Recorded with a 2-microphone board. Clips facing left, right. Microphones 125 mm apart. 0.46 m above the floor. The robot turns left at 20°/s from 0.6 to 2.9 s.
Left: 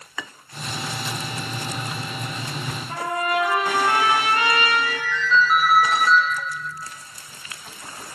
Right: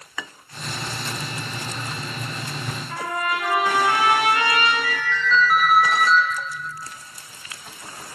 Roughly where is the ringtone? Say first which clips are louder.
Right 1 dB; centre.